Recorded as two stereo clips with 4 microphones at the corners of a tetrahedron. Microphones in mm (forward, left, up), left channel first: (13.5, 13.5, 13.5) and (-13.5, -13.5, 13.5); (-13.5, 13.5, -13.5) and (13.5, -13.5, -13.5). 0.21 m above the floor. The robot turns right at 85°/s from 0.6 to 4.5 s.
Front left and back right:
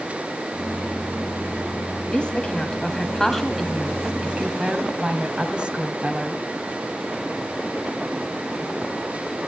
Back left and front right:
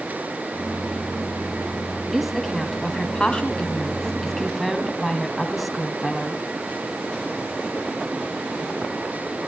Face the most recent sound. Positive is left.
turn(degrees=-135)